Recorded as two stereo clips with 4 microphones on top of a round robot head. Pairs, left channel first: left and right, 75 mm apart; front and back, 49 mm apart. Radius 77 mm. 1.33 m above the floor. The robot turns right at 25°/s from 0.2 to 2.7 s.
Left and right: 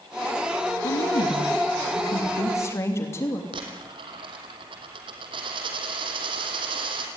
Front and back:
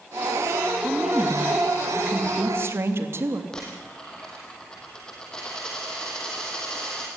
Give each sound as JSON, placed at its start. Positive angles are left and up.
{"t": 0.8, "sound": "a woman speaking", "azimuth_deg": 100, "distance_m": 2.5}
{"t": 3.5, "sound": "a dropped coin", "azimuth_deg": -80, "distance_m": 3.0}